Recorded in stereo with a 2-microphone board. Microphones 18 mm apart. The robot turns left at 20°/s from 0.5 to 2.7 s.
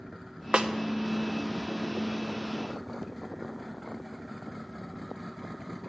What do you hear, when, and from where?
0.5 s a snare drum: 65° right (ahead or behind), 0.5 m; by 0.7 s 60° right (ahead or behind), 0.5 m